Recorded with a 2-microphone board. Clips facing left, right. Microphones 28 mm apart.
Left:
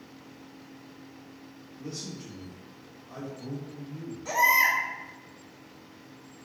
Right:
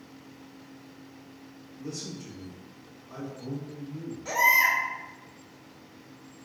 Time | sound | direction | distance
1.8 | a man speaking | 30° left (ahead or behind) | 0.9 m
4.2 | a baby crying | 10° right (ahead or behind) | 1.0 m